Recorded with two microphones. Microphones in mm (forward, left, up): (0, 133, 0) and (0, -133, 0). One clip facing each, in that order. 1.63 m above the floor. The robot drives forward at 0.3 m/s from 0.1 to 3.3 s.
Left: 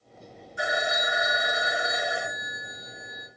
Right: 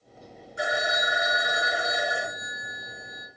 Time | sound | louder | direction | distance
0.6 | a phone ringing | right 1 dB | 25° right (ahead or behind) | 1.8 m